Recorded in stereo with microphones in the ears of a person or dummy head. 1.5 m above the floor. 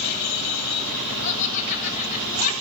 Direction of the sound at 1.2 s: 40° left (ahead or behind).